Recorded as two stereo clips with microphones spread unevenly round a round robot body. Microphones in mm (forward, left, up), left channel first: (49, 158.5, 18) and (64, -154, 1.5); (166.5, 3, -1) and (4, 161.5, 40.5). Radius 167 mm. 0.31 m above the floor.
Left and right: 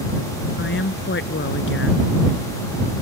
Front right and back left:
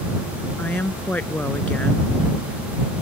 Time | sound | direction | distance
0.6 | a woman speaking | 40° left | ?